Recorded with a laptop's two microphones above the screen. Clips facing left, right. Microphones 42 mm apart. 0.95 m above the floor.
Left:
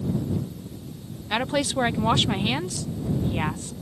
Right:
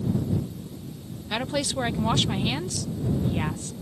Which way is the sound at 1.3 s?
20° left (ahead or behind).